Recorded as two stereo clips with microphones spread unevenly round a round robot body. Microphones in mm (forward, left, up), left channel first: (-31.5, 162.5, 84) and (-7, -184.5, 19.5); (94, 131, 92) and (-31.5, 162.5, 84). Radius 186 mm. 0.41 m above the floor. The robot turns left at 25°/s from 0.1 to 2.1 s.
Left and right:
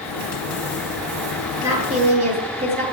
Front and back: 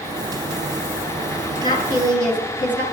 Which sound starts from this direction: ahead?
A woman speaking, at 1.6 s.